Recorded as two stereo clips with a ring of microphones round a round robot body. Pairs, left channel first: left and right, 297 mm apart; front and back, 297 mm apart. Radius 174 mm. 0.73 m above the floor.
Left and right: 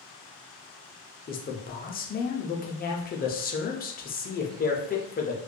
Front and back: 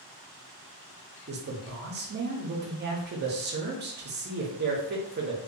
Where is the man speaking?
140° left, 0.6 m.